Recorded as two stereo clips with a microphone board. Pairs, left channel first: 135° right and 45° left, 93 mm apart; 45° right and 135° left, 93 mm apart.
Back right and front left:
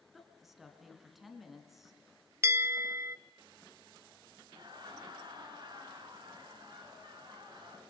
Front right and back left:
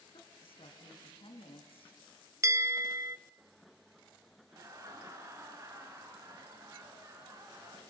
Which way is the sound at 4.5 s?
80° left.